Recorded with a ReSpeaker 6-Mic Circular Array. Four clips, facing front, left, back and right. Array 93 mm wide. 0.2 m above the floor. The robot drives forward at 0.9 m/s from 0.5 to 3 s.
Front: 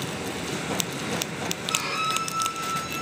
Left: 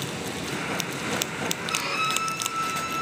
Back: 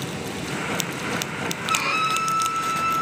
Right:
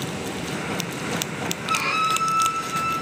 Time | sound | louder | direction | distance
1.7 | a violin | right 9 dB, back 6 dB | 140° right | 2.5 m